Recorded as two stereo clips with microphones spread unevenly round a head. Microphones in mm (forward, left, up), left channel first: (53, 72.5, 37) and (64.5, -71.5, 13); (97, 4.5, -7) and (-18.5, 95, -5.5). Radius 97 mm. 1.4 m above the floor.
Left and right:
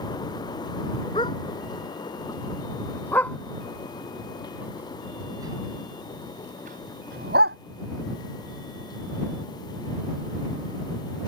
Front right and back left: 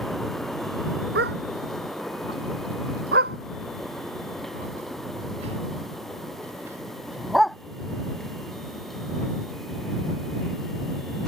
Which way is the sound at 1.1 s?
160° left.